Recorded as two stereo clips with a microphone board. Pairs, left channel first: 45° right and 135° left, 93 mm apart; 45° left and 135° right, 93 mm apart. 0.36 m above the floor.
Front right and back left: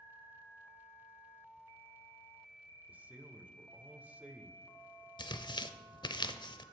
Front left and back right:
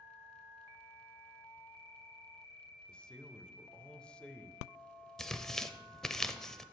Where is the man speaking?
100° left, 0.8 m.